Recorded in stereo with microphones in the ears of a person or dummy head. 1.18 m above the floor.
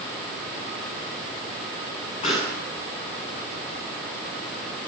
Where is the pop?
40° left (ahead or behind), 8.5 m.